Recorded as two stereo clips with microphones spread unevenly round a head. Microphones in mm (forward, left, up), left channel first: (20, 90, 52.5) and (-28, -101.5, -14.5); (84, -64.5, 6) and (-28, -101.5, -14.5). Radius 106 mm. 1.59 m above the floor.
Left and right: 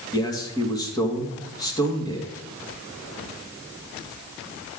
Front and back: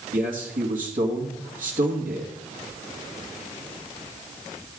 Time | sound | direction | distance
0.1 | a man speaking | 145° left | 2 m